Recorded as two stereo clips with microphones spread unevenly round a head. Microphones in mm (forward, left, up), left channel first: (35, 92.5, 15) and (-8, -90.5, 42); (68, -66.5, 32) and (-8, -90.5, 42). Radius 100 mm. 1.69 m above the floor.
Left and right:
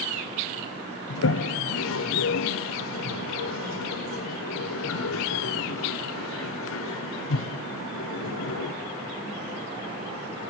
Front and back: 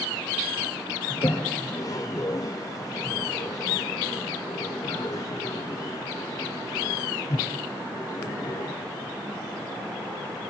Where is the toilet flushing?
75° left, 0.9 m.